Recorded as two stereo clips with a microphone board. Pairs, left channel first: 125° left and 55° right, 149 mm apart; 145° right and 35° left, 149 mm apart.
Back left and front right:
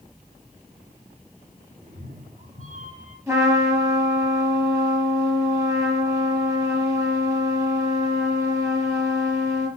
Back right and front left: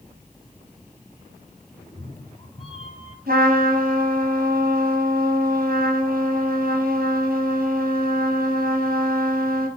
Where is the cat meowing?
80° right, 3 m; by 3.2 s 100° right, 3 m.